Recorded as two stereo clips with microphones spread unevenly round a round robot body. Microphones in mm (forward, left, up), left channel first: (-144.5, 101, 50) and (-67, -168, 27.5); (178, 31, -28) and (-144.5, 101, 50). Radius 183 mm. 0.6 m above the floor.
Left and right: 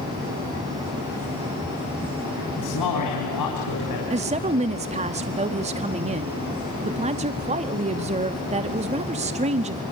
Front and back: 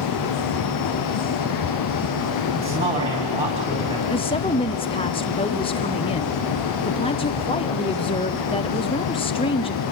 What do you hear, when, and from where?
2.6 s a man speaking: 95° left, 4 m
4.1 s a woman speaking: 40° right, 0.7 m